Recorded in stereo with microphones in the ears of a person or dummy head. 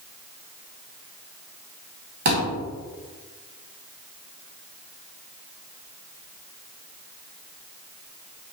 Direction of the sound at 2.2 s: 45° right (ahead or behind).